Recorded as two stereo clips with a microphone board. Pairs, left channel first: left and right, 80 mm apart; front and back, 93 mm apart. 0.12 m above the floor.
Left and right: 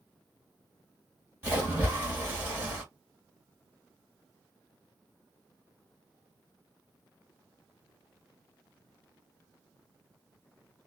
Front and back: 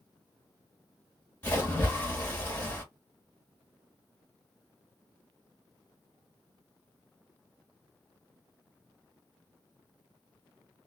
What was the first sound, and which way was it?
A splash, 45° right.